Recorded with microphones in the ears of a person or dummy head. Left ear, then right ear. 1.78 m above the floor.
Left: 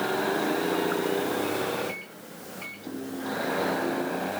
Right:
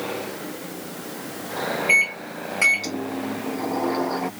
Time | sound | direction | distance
1.9 | a microwave | 50° right (ahead or behind) | ?